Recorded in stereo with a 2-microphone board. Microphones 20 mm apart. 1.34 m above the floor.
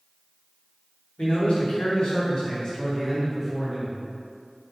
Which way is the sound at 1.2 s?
75° left (ahead or behind).